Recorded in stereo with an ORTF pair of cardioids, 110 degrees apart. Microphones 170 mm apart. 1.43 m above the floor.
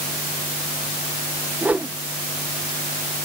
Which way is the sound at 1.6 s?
10° right.